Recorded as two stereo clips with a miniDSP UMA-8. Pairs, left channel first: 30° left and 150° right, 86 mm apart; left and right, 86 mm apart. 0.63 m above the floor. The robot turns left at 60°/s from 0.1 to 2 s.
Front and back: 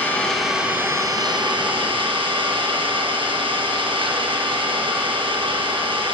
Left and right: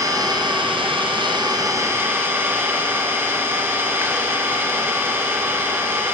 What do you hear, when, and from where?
0.0 s an engine running: 40° right, 3.5 m; by 6.2 s 155° right, 3.5 m